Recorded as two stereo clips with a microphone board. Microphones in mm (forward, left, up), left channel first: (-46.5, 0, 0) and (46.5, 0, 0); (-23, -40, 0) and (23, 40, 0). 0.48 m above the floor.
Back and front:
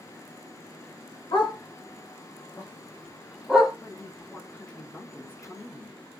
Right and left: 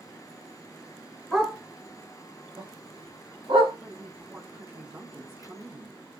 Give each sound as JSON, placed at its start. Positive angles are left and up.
{"t": 1.3, "sound": "a dog barking", "azimuth_deg": 145, "distance_m": 1.6}
{"t": 3.8, "sound": "a woman speaking", "azimuth_deg": 110, "distance_m": 1.0}